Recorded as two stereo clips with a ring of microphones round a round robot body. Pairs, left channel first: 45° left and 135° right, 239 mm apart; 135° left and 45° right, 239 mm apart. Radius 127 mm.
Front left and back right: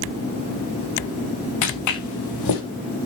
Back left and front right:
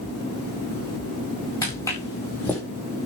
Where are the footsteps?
60° left, 4.5 m; by 2.6 s 50° left, 4 m.